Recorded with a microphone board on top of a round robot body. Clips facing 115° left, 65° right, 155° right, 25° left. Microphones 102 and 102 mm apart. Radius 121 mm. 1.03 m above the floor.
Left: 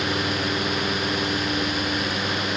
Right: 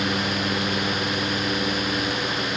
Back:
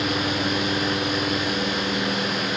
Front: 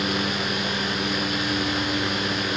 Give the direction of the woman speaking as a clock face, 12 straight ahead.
No woman speaking in this recording.